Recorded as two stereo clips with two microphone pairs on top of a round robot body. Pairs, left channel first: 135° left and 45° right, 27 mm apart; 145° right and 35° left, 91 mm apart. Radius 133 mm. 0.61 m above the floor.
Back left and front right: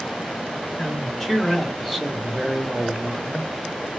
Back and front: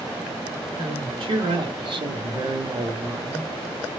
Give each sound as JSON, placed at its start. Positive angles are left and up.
{"t": 0.8, "sound": "a man speaking", "azimuth_deg": 60, "distance_m": 1.5}